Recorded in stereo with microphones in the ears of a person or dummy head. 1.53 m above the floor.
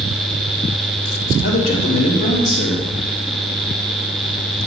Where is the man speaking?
35° left (ahead or behind), 1.7 m.